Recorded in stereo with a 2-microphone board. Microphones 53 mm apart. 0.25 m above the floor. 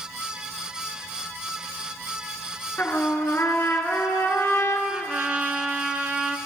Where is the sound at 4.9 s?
25° right (ahead or behind), 0.6 m.